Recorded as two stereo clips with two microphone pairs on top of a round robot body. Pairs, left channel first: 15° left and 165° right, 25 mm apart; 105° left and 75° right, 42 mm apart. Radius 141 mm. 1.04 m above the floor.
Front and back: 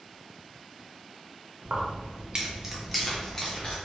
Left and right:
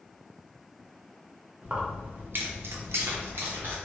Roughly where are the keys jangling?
Behind right.